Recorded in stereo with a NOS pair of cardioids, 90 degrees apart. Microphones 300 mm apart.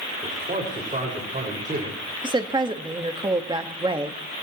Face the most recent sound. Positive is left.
turn(degrees=-15)